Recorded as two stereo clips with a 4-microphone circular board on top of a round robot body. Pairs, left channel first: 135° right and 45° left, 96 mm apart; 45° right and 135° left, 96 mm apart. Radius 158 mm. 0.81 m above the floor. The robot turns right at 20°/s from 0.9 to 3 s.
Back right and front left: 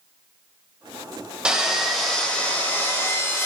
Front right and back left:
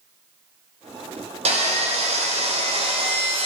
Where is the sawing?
125° left, 1.4 m; by 3.5 s 160° left, 1.4 m.